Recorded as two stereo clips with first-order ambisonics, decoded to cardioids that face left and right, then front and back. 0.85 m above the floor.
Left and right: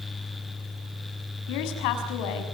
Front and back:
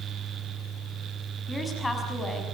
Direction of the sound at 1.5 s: 80° left.